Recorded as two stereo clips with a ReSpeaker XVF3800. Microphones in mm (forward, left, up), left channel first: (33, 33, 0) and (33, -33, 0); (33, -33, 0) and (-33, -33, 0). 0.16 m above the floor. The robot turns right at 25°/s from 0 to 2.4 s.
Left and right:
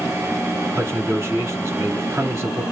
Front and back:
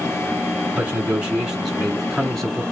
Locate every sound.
0.8 s a man speaking: 125° right, 2.0 m; by 2.6 s 85° right, 2.0 m